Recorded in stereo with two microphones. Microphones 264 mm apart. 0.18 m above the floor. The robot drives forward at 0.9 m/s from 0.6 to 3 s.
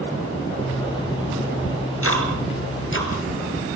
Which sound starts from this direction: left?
Ticking, at 1.6 s.